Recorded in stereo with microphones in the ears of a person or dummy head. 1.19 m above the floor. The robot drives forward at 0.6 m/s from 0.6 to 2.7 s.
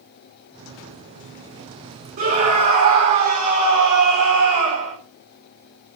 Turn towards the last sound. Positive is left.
turn(degrees=-45)  # may be behind; listen again after turning